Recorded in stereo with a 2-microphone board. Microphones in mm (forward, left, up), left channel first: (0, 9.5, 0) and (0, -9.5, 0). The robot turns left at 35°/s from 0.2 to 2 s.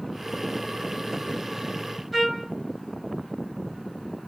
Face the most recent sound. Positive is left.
turn(degrees=-10)  # may be behind; listen again after turning